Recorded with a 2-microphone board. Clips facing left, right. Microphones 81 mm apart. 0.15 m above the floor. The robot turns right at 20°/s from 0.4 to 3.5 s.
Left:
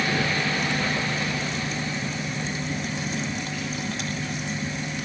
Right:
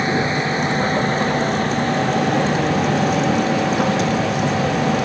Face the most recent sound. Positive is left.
turn(degrees=-90)